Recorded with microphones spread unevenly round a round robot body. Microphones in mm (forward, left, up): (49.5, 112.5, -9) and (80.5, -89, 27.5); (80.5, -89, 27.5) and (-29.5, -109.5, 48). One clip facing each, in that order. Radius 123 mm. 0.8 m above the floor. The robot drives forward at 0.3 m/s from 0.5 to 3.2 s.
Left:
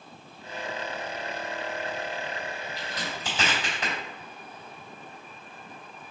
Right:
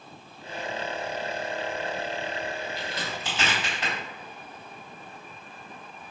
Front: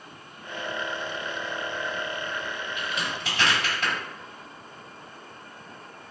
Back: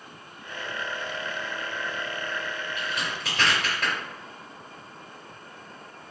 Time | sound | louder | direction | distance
2.8 | a crack | right 2 dB, even | 155° left | 2.0 m